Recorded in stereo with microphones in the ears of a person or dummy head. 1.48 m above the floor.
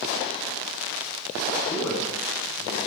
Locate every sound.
1.7 s a man speaking: 10° left (ahead or behind), 8 m